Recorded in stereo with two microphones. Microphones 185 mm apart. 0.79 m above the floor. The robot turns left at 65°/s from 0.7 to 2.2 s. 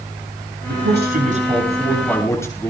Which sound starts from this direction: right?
A man speaking, at 0.7 s.